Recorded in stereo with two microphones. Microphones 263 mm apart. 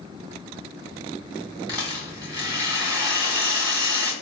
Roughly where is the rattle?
Centre.